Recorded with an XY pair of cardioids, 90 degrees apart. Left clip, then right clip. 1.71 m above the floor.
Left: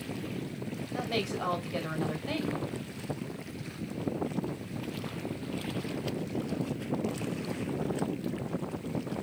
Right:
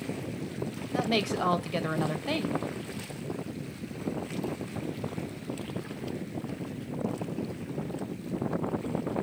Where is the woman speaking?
50° right, 1.4 m.